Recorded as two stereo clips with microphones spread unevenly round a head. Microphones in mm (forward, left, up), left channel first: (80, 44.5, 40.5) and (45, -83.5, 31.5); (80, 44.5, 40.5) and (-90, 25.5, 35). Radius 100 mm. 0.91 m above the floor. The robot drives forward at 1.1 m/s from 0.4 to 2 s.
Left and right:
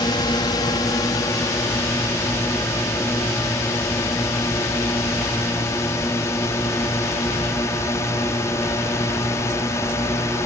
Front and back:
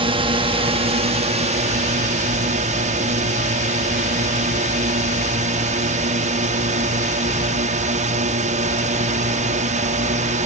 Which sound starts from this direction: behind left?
A drone, at 0.0 s.